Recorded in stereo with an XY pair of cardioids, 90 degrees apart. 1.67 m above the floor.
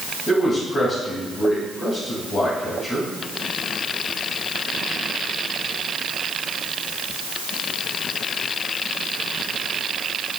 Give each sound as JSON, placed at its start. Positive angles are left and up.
{"t": 0.3, "sound": "a man speaking", "azimuth_deg": 50, "distance_m": 3.0}